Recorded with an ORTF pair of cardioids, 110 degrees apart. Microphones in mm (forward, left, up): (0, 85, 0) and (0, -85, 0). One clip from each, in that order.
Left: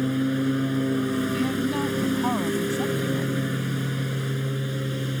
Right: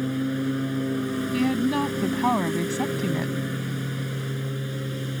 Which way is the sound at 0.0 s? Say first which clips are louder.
Left 2 dB; 20° left.